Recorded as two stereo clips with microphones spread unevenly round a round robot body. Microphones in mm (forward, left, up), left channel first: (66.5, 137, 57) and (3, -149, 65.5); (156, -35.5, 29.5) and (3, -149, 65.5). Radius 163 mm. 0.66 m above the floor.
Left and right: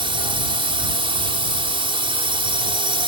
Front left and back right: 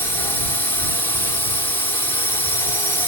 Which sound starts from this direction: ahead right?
A drone, at 0.0 s.